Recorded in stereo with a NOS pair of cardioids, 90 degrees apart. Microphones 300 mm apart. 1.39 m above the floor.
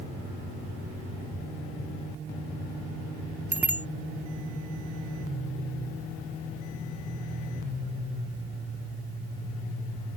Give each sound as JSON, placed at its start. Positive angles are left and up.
{"t": 3.5, "sound": "a bicycle bell", "azimuth_deg": -5}